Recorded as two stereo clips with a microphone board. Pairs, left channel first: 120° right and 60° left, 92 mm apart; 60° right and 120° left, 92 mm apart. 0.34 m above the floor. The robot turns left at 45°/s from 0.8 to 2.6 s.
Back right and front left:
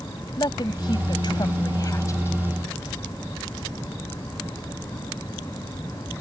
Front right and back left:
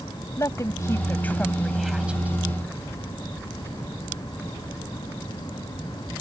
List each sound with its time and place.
0.4 s a woman speaking: 105° right; by 2.4 s 175° right